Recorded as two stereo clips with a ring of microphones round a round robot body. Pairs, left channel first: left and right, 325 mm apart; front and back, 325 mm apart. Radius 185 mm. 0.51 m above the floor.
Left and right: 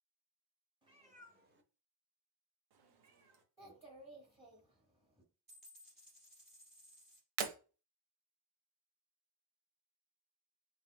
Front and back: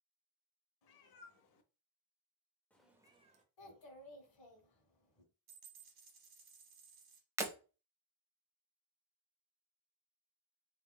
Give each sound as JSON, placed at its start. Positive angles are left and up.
{"t": 0.8, "sound": "a cat meowing", "azimuth_deg": -15, "distance_m": 1.1}
{"t": 3.6, "sound": "a child speaking", "azimuth_deg": -10, "distance_m": 1.2}
{"t": 5.5, "sound": "a dropped coin", "azimuth_deg": -155, "distance_m": 1.9}
{"t": 7.4, "sound": "breaking glass", "azimuth_deg": -100, "distance_m": 0.7}